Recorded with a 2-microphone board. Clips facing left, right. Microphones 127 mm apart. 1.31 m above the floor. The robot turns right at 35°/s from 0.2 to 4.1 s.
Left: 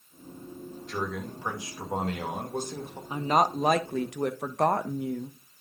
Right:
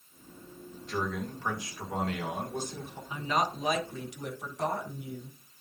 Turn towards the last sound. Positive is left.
turn(degrees=70)